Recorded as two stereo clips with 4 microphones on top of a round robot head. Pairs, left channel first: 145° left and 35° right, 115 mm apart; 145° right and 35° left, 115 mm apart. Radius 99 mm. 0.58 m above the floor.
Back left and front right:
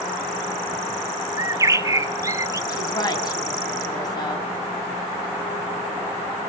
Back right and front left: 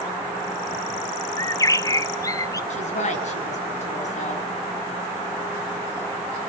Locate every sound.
1.4 s a bird: 90° right, 1.0 m
2.7 s a woman speaking: 160° right, 7 m